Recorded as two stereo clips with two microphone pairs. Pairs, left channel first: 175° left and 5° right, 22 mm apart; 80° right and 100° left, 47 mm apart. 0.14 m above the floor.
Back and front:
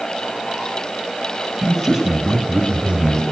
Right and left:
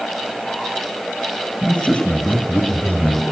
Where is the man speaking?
115° right, 1.1 m; by 3.2 s 45° right, 1.6 m.